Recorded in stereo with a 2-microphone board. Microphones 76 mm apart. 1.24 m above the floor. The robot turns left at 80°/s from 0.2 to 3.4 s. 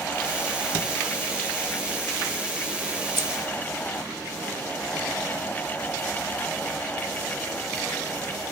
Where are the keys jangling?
35° right (ahead or behind), 0.8 m; by 3.3 s 45° right (ahead or behind), 0.8 m.